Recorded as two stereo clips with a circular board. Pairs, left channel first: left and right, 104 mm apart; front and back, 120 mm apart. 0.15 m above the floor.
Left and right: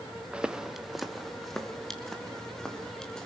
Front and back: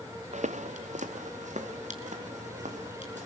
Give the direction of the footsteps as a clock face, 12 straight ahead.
6 o'clock.